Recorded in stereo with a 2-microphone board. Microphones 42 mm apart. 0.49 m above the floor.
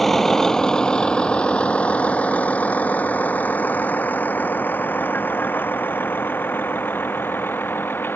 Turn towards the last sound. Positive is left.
turn(degrees=55)  # may be behind; listen again after turning